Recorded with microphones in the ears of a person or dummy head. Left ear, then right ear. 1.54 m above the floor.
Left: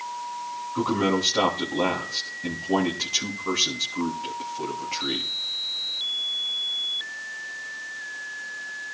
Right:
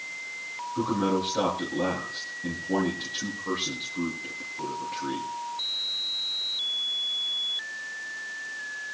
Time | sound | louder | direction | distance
0.8 | a man speaking | left 3 dB | 70° left (ahead or behind) | 3.5 m